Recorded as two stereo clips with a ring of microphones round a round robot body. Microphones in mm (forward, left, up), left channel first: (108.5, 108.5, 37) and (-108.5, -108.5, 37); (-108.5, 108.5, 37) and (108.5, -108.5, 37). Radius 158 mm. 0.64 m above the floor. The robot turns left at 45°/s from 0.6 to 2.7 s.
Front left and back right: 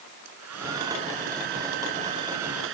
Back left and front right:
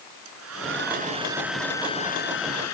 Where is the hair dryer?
90° right; by 2.7 s 175° left.